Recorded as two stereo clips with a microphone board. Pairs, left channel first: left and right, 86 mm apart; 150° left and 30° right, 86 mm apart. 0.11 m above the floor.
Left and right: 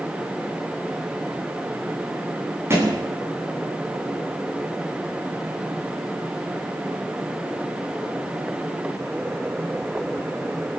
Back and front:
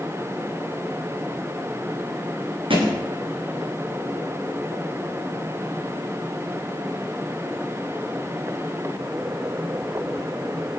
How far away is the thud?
About 8.5 m.